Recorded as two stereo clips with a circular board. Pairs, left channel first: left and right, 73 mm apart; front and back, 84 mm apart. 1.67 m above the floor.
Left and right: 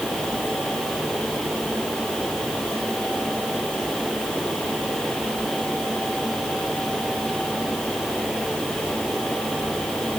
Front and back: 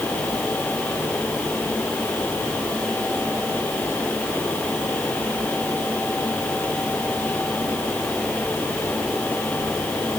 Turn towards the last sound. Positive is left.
No sound to turn to.